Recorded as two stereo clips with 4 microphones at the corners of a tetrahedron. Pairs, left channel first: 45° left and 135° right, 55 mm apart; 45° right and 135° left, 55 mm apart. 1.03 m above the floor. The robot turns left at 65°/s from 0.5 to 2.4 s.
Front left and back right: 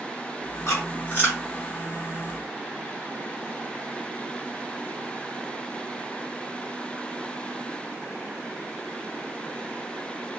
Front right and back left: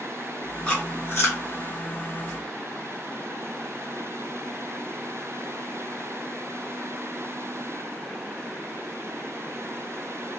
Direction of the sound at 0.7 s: 25° left.